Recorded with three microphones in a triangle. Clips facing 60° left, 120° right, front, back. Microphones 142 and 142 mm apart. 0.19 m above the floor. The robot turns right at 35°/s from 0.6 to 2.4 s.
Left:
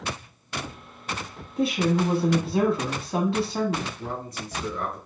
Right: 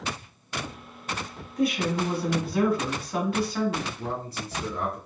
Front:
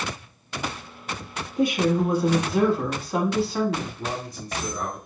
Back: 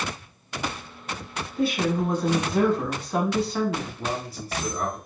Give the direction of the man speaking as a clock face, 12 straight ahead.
3 o'clock.